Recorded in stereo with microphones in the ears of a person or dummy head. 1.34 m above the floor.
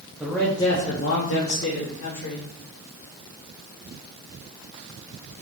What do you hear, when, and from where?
0.2 s a man speaking: 5° right (ahead or behind), 0.7 m; by 2.5 s 80° left, 1.7 m